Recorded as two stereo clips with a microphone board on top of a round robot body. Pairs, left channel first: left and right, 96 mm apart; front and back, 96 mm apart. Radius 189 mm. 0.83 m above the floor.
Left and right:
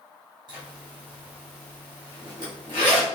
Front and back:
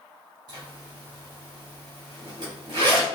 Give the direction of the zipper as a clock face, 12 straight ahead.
4 o'clock.